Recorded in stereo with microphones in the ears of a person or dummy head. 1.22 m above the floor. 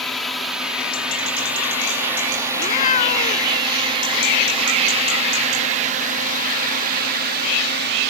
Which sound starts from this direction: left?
A cat meowing, at 2.5 s.